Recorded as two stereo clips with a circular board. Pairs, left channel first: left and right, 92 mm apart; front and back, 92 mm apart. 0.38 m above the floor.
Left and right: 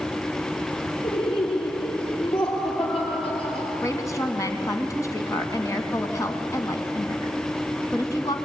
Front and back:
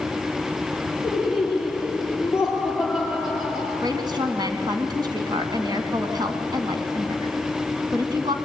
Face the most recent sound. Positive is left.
turn(degrees=145)